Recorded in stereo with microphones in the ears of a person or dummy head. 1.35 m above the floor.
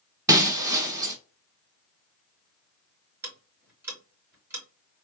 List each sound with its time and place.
0.3 s breaking glass: 20° right (ahead or behind), 1.6 m
3.2 s ticking: 15° right (ahead or behind), 3.5 m